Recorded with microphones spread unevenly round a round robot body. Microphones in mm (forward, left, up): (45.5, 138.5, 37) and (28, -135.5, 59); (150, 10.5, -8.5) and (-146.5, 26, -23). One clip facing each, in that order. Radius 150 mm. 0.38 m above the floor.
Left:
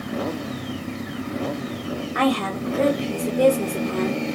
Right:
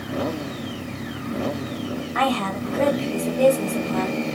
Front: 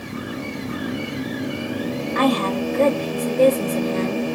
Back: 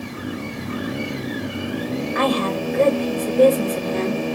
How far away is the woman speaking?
About 0.9 m.